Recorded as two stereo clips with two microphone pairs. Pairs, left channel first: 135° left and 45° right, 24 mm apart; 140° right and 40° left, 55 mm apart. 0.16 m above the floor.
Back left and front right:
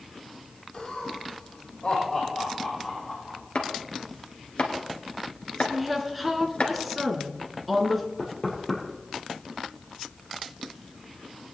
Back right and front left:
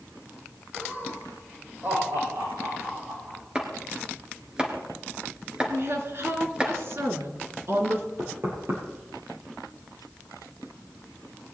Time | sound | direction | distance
0.7 | laughter | 85° left | 4.5 m
3.5 | chopping | 110° left | 1.9 m
5.7 | a woman speaking | 40° left | 2.5 m
8.2 | knocking | 55° left | 4 m